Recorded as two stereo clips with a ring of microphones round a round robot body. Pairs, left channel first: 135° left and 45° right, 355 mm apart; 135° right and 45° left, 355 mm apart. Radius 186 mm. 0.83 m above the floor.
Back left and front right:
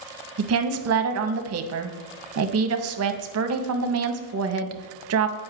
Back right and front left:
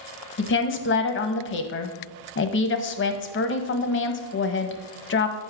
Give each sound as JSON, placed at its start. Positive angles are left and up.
{"t": 0.4, "sound": "a woman speaking", "azimuth_deg": -85, "distance_m": 0.7}